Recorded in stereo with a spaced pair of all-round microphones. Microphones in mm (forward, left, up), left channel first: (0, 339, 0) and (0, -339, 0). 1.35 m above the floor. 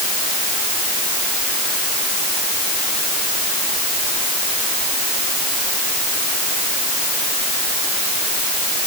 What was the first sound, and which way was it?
Only background noise.